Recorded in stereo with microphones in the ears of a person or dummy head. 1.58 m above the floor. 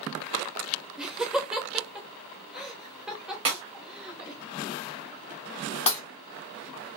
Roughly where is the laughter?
Centre.